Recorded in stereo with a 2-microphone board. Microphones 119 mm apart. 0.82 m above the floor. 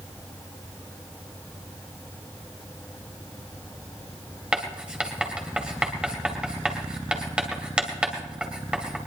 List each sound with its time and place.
4.5 s writing: 10° right (ahead or behind), 2.5 m